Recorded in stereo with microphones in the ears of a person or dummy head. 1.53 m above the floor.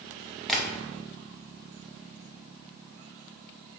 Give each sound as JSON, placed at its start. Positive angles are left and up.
{"t": 0.5, "sound": "tapping", "side_deg": 0, "distance_m": 0.6}